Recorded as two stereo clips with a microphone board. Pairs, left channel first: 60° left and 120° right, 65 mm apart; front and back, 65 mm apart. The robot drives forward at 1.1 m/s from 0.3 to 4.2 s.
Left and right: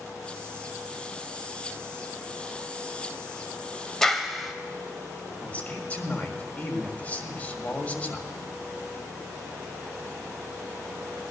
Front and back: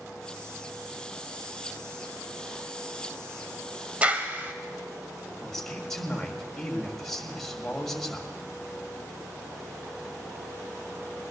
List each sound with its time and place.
4.0 s a clap: 135° left, 0.9 m; by 4.5 s 150° left, 1.0 m
5.4 s a man speaking: 75° left, 1.5 m